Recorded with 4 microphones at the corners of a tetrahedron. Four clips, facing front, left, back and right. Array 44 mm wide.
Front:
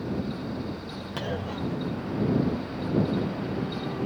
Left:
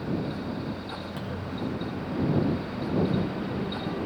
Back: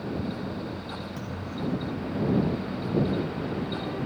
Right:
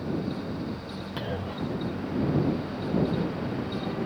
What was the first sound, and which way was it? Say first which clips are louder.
A clunk: right 4 dB, front 7 dB; 25° right.